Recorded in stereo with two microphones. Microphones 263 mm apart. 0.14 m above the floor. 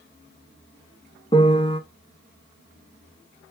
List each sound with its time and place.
1.3 s a piano: 20° left (ahead or behind), 1.0 m